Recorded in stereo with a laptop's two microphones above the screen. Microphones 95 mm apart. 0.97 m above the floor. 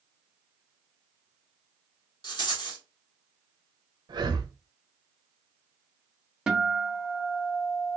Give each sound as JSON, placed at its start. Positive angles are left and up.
{"t": 2.2, "sound": "a rattle", "side_deg": 50, "distance_m": 1.6}
{"t": 4.1, "sound": "breathing", "side_deg": -50, "distance_m": 0.7}
{"t": 6.5, "sound": "a guitar", "side_deg": -5, "distance_m": 0.7}